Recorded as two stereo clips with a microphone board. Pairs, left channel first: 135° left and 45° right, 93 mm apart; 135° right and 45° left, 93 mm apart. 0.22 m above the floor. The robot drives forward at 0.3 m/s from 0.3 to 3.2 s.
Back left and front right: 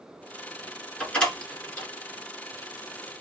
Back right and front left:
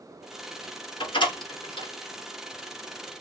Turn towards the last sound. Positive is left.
turn(degrees=-155)